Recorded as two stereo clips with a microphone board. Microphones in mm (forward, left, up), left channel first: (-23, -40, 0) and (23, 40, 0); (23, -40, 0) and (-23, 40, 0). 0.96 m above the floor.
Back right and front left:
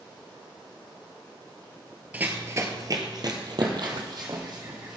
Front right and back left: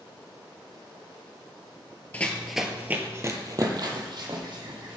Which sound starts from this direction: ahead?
Running footsteps, at 2.1 s.